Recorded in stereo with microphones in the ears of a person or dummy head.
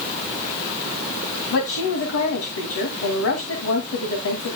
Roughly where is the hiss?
No hiss in this recording.